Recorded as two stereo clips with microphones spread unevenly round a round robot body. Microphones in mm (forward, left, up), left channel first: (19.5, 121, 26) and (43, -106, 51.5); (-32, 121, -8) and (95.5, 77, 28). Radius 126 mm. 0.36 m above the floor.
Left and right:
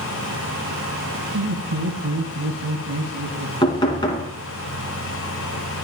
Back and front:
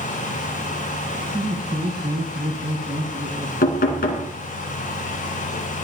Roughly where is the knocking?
Behind.